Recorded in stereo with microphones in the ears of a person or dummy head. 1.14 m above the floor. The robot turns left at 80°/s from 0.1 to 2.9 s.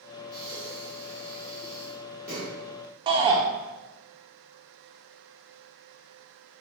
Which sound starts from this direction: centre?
Breathing, at 0.3 s.